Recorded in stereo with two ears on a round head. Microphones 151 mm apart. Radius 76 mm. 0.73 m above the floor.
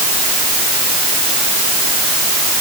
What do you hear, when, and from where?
Only background noise.